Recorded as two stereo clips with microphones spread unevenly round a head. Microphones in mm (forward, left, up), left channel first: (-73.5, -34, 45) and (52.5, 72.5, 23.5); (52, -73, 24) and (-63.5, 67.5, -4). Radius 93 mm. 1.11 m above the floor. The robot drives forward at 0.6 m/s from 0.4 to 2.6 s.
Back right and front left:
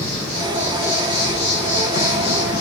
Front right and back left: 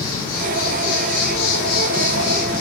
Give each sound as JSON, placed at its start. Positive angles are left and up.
{"t": 0.0, "sound": "an insect", "azimuth_deg": -55, "distance_m": 1.4}